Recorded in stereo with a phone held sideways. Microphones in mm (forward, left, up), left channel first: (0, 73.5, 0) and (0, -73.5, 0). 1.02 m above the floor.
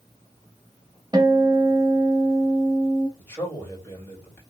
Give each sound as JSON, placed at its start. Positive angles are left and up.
{"t": 1.1, "sound": "a guitar", "side_deg": -30, "distance_m": 0.9}
{"t": 3.2, "sound": "a man speaking", "side_deg": 15, "distance_m": 2.5}